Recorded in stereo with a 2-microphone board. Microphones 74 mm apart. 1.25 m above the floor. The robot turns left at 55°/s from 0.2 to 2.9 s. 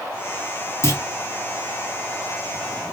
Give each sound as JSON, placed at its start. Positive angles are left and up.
{"t": 0.8, "sound": "a clunk", "side_deg": 40, "distance_m": 1.5}